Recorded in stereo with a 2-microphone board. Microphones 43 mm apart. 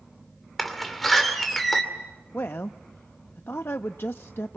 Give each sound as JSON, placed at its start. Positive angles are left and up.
{"t": 0.6, "sound": "a door slam", "side_deg": 5, "distance_m": 2.5}
{"t": 2.3, "sound": "a woman speaking", "side_deg": 60, "distance_m": 0.6}